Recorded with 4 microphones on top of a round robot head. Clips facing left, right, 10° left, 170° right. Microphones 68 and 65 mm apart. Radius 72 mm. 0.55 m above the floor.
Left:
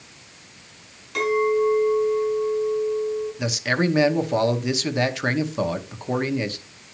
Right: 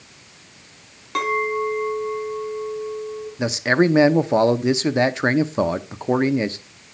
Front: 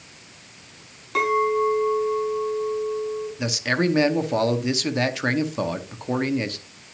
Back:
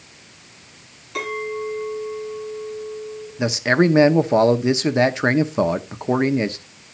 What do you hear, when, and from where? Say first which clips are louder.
1.1 s a clink: left 2 dB, front 6 dB; 50° right, 4 m
3.4 s a man speaking: right 8 dB, back 7 dB; 130° right, 0.8 m